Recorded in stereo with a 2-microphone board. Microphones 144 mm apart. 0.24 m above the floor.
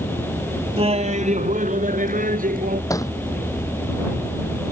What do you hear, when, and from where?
0.8 s laughter: 40° right (ahead or behind); by 2.8 s 75° right (ahead or behind)
2.9 s a thud: 25° left (ahead or behind)